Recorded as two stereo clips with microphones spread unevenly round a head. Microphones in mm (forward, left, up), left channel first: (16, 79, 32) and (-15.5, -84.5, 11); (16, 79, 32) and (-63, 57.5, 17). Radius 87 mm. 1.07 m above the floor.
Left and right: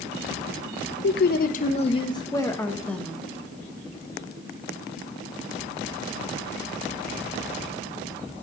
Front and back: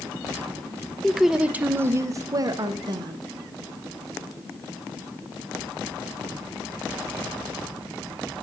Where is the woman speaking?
105° left, 0.7 m; by 3.2 s 170° left, 1.2 m.